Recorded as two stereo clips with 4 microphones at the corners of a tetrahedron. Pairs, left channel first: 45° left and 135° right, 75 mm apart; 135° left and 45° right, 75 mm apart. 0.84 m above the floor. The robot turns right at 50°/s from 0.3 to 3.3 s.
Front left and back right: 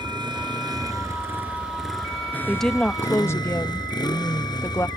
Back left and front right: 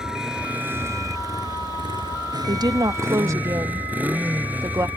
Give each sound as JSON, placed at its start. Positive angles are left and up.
{"t": 0.0, "sound": "a motorcycle", "azimuth_deg": -125}
{"t": 2.5, "sound": "a woman speaking", "azimuth_deg": -45}